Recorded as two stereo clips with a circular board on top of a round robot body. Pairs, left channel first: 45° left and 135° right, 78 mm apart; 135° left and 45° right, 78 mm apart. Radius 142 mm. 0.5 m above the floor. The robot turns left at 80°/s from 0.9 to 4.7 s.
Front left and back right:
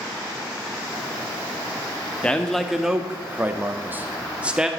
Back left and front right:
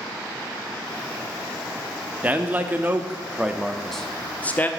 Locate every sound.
2.2 s a man speaking: 10° right, 0.7 m; by 4.7 s 155° left, 0.7 m